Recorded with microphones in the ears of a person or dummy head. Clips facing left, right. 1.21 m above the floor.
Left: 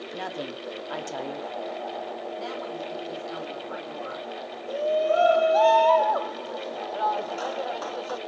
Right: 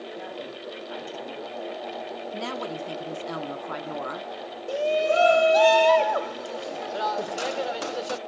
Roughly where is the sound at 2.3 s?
Right.